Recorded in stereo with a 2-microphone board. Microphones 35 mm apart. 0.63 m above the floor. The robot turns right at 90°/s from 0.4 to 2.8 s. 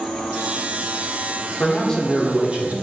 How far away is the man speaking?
About 1.2 m.